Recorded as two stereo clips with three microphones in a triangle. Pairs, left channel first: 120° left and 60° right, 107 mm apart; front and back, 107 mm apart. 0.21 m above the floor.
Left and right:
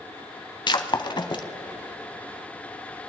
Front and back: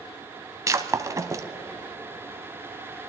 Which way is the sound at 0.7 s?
135° left.